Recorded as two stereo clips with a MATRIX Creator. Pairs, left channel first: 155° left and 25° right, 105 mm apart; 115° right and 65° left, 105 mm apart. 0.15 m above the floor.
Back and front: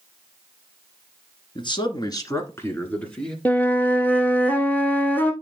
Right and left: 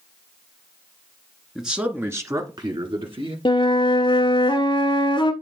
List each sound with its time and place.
1.6 s a man speaking: 155° left, 1.6 m; by 3.4 s 75° left, 2 m
3.5 s a flute: 130° right, 1.1 m